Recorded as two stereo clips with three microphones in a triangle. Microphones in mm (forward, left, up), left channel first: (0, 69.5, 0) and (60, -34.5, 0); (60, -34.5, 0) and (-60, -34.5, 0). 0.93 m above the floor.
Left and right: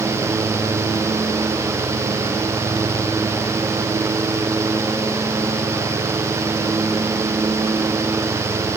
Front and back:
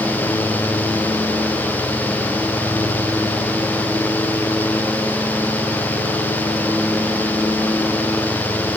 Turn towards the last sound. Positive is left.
No sound to turn to.